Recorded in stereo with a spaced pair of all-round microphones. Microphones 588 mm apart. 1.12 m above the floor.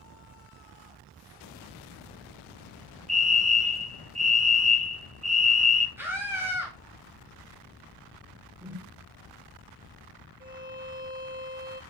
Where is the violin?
15° right (ahead or behind), 1.1 m.